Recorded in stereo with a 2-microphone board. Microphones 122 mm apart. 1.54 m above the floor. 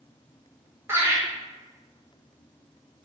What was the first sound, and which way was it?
Laughter, 20° right (ahead or behind).